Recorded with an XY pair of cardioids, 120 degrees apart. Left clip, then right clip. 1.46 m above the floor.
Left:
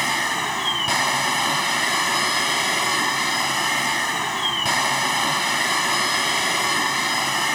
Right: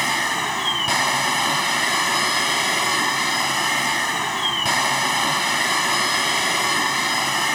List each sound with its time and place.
0.0 s a machine running: 5° right